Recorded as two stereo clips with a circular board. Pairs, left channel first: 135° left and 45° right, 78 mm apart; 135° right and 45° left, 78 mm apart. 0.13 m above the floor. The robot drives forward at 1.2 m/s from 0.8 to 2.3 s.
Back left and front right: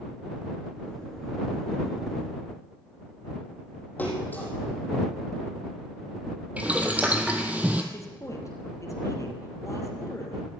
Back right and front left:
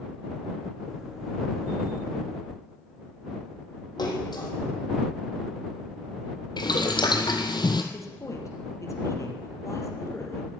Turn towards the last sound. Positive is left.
turn(degrees=180)